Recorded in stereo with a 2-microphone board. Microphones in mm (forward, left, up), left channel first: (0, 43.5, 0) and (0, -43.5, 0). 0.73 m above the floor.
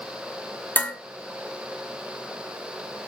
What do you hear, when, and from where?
0.8 s dishes clattering: 20° left (ahead or behind), 1.2 m